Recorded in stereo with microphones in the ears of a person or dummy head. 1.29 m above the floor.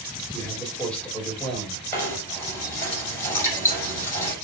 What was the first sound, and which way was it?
A man speaking, 5° left (ahead or behind).